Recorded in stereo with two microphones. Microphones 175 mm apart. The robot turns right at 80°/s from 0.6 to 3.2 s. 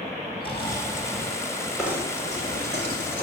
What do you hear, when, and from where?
0.4 s snoring: 150° left, 4 m; by 1.4 s 145° right, 4 m
1.8 s knocking: straight behind, 4 m; by 3.2 s 65° right, 4 m